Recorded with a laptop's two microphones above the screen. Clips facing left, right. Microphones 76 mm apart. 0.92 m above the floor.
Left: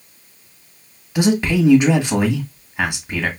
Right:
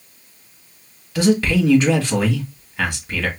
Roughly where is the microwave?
No microwave in this recording.